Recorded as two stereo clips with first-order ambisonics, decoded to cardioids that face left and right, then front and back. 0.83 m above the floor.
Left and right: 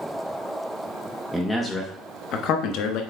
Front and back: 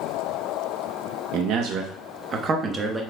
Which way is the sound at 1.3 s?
Straight behind.